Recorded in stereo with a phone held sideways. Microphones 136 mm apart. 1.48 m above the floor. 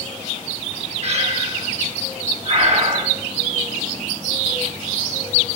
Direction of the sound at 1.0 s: 50° right (ahead or behind).